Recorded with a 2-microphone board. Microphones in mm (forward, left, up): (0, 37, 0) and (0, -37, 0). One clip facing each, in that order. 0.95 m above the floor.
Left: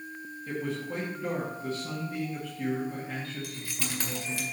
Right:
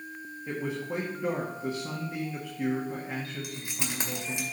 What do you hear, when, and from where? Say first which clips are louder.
0.5 s a man speaking: right 1 dB; 20° right (ahead or behind), 1.6 m
3.4 s keys jangling: right 1 dB; 20° right (ahead or behind), 2 m